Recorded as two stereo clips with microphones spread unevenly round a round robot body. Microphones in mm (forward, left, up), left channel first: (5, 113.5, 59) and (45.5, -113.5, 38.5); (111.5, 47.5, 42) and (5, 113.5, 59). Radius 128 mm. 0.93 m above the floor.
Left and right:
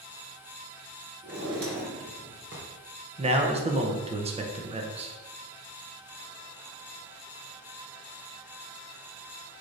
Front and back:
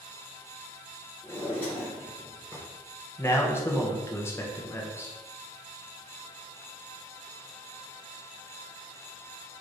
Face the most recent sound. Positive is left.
turn(degrees=-65)